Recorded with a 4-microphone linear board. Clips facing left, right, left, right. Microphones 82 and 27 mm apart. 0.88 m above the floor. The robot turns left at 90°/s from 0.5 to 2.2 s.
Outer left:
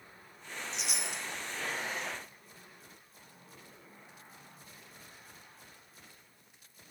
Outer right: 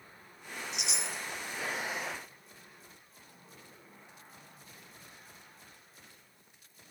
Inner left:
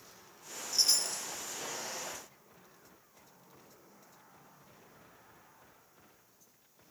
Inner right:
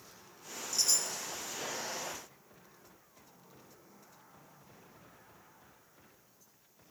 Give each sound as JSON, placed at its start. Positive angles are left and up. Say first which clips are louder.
{"t": 0.7, "sound": "a chime", "louder": "outer right 1 dB, inner left 2 dB", "azimuth_deg": 150, "distance_m": 0.9}